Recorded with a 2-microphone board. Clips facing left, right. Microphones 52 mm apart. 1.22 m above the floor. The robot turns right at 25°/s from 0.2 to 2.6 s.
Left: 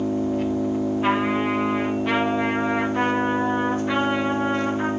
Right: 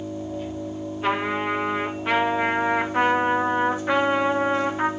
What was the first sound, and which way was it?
An engine running, 70° left.